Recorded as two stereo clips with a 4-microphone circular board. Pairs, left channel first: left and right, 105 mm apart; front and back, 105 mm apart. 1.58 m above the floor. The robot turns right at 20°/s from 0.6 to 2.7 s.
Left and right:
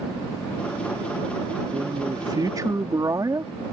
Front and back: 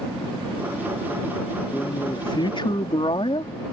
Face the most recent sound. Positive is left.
turn(degrees=-35)